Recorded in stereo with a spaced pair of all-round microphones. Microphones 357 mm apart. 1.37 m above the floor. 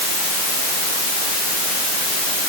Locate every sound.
Only background noise.